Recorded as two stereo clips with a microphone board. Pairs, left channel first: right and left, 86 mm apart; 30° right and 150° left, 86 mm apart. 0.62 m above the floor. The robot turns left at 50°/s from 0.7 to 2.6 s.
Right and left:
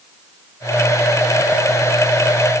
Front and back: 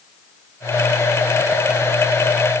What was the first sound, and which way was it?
Only background noise.